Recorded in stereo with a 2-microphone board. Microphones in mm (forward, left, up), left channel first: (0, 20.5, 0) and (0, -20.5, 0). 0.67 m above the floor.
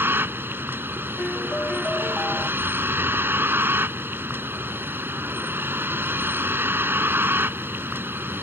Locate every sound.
0.0 s a vehicle: 70° right (ahead or behind)
1.2 s a piano: 35° left (ahead or behind)